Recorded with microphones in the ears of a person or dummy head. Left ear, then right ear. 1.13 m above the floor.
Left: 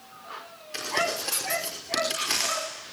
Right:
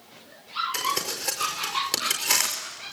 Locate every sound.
0.7 s crumpling: 25° right (ahead or behind), 5 m